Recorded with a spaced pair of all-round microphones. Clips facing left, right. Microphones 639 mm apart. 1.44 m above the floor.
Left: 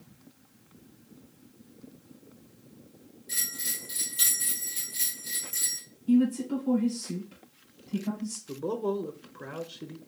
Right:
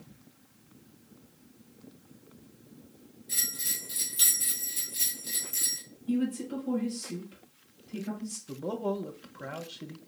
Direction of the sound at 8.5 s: 15° right (ahead or behind).